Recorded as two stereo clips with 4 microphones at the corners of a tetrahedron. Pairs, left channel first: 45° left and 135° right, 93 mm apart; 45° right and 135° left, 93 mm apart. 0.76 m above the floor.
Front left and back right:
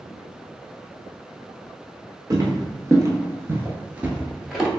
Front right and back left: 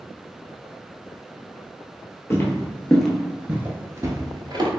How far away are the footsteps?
About 1.0 m.